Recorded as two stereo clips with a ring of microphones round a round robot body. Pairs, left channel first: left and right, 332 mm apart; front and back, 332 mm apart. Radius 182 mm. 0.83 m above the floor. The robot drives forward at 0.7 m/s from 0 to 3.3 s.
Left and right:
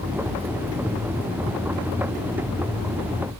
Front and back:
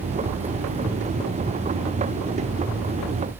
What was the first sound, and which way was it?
Only background noise.